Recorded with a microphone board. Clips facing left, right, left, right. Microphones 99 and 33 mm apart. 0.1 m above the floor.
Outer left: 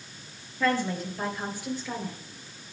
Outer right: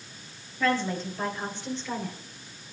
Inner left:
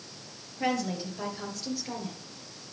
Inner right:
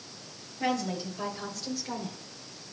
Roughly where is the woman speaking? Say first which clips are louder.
Even, even; centre.